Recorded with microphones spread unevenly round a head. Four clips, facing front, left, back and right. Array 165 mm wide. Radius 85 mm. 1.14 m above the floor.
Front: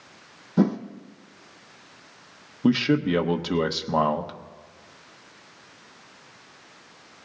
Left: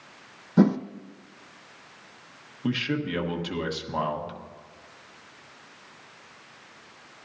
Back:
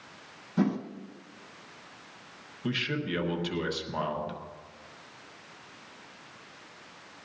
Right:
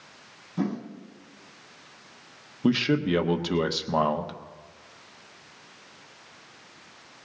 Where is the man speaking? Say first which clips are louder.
Right 5 dB, front 12 dB; 40° right, 1.1 m.